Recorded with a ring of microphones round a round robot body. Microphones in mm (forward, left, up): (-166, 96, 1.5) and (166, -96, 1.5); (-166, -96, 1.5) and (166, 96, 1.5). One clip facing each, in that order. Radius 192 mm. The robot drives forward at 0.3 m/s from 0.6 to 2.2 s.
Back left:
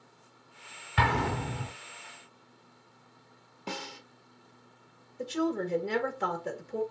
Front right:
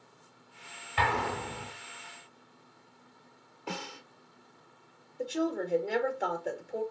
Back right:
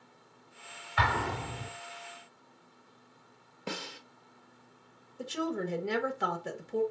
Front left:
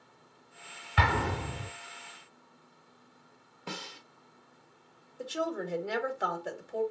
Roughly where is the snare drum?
Behind right.